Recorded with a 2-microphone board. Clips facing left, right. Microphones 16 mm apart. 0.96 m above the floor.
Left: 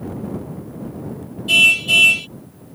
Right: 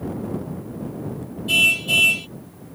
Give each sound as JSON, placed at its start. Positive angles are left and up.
{"t": 1.5, "sound": "a car horn", "side_deg": 15}